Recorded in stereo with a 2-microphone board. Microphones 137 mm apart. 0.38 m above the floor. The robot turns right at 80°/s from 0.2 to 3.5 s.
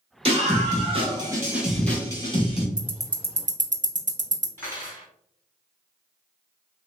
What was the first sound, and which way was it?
A scream, 120° right.